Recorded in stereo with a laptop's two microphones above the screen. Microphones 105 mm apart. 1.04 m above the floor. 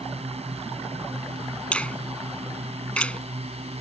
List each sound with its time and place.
0.0 s a drone: 85° right
1.7 s a finger snap: 10° left (ahead or behind)